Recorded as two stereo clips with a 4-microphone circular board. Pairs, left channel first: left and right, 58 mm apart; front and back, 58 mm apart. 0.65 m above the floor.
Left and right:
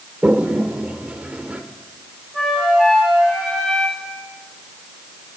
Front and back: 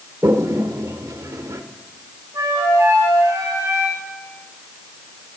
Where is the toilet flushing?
155° right, 1.1 m.